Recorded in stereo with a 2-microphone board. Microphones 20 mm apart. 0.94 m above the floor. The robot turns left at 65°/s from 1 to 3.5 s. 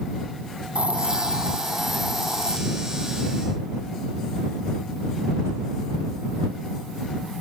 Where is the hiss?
115° right; by 2.6 s 140° left.